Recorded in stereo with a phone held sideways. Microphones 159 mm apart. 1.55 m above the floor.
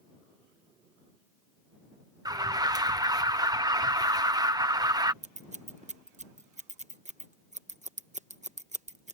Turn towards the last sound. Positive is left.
turn(degrees=-50)  # may be behind; listen again after turning